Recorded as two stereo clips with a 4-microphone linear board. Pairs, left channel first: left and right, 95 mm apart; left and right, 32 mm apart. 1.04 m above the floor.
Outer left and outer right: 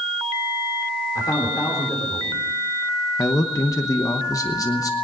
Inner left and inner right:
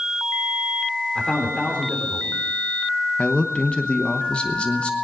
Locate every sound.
1.1 s a man speaking: 40° left (ahead or behind), 3.5 m
3.2 s a man speaking: 35° left (ahead or behind), 1.0 m